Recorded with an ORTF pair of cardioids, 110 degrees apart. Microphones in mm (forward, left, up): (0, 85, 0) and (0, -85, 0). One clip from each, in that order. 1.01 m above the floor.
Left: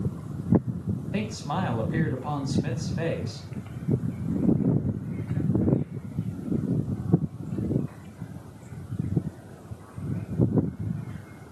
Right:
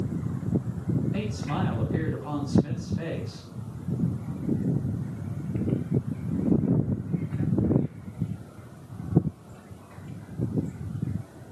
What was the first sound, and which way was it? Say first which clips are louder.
A man speaking: left 1 dB; 35° left.